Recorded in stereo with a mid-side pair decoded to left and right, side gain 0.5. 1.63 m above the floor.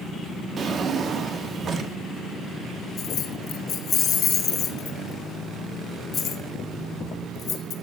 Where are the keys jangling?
55° left, 1.5 m.